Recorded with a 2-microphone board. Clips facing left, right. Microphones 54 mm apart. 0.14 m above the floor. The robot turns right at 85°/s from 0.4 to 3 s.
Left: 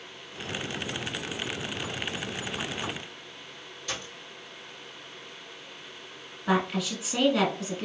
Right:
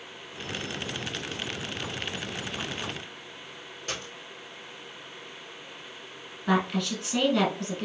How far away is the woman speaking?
About 1.2 m.